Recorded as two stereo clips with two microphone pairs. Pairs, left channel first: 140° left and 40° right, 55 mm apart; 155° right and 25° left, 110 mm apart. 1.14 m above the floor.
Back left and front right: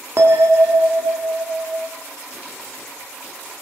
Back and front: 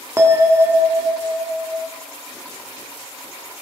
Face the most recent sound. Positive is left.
turn(degrees=-35)